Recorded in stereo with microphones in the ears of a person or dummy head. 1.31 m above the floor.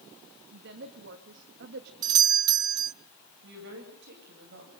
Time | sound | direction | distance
0.5 | a woman speaking | 60° right (ahead or behind) | 2 m
2.0 | a doorbell | 20° right (ahead or behind) | 0.5 m
3.4 | a woman speaking | 65° right (ahead or behind) | 8.5 m